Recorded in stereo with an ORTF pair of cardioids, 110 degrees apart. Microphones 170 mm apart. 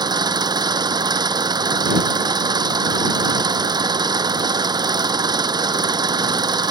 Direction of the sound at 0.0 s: 25° right.